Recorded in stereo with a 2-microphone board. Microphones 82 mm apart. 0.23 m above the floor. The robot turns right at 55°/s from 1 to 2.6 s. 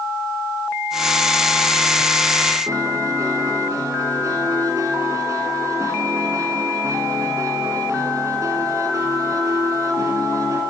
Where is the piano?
40° right (ahead or behind), 2.5 m.